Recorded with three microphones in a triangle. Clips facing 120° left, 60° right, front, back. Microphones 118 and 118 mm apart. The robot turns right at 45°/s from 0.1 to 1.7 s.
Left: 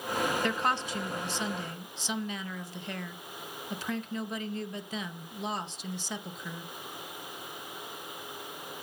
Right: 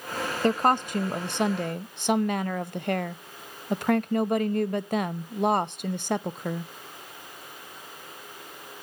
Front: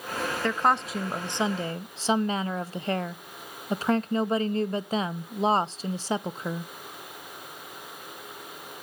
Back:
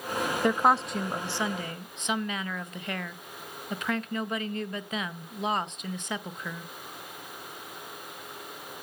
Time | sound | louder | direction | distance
0.4 | a woman speaking | right 7 dB, back 1 dB | 105° right | 0.5 m